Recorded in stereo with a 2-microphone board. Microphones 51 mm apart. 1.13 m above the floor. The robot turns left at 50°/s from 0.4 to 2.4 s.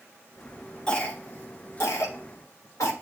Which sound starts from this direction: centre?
A cough, at 0.9 s.